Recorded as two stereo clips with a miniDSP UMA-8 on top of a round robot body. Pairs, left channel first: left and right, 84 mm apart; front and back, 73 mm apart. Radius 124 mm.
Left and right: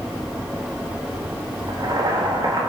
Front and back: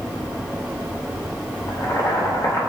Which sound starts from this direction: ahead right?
Boiling, at 1.7 s.